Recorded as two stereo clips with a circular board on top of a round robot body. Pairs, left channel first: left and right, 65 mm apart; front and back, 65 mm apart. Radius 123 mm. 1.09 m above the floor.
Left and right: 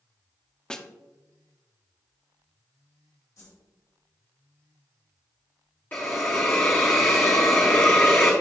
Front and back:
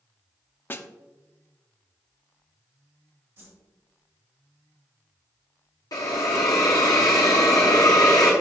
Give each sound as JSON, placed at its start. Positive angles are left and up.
{"t": 0.7, "sound": "a snare drum", "azimuth_deg": 20, "distance_m": 0.8}
{"t": 3.4, "sound": "a whoosh", "azimuth_deg": 125, "distance_m": 1.7}
{"t": 5.9, "sound": "a hiss", "azimuth_deg": 30, "distance_m": 0.7}